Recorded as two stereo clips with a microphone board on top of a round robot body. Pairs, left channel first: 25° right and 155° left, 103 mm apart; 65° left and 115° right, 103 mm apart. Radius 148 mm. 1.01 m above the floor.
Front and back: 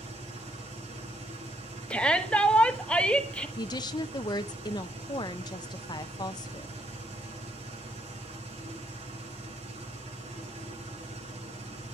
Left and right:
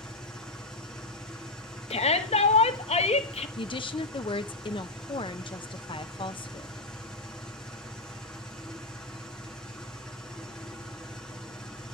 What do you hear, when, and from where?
0.0 s an engine running: 150° left, 9 m
1.9 s a shout: 60° left, 2 m
3.6 s a woman speaking: 30° left, 0.7 m